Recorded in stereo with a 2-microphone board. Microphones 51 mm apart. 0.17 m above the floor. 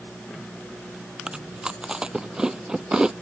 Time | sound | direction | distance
1.3 | chewing | 15° right (ahead or behind) | ?